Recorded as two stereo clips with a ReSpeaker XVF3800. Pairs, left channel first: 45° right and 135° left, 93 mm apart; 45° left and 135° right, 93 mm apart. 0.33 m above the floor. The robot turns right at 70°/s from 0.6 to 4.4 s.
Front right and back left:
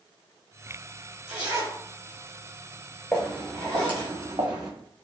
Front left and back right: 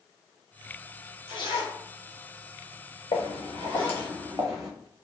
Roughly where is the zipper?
Ahead left.